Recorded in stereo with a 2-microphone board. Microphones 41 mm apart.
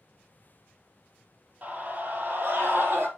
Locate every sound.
1.6 s a scream: 35° right (ahead or behind), 3.5 m; by 3.1 s 50° right (ahead or behind), 4 m